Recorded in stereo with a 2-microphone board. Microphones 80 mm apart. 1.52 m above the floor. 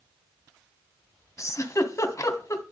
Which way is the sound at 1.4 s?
40° left (ahead or behind).